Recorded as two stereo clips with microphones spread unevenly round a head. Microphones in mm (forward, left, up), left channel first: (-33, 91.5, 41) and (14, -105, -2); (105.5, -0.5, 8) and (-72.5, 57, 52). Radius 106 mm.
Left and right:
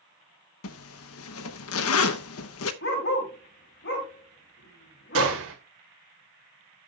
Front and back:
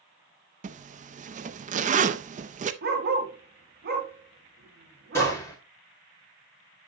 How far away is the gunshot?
About 2 m.